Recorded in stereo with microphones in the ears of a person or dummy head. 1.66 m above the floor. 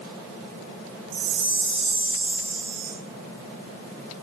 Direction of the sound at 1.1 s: 70° right (ahead or behind).